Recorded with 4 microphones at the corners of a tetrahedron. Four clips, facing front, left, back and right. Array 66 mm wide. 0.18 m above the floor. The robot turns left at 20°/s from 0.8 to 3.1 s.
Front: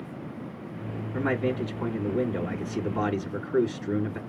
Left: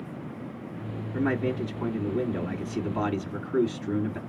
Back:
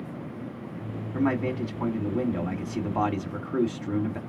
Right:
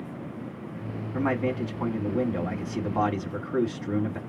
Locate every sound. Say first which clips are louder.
1.1 s a man speaking: even, back 1 dB; 110° right, 1.9 m; by 4.2 s 150° right, 1.9 m